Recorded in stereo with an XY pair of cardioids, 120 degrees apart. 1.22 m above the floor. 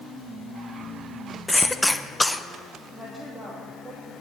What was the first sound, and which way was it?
A cough, 10° left.